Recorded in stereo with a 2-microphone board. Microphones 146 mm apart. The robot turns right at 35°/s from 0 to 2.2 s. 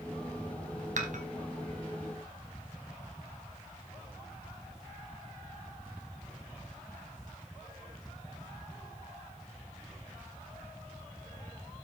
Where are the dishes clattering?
55° right (ahead or behind), 1.7 m; by 1.2 s 60° right (ahead or behind), 1.7 m.